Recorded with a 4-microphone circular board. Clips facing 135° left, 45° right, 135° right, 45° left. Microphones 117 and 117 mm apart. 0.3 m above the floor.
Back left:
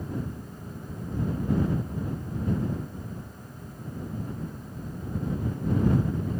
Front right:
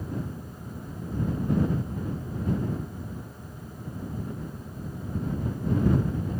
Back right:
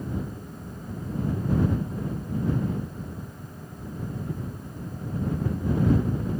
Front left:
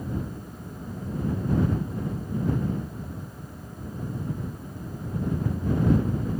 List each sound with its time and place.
Only background noise.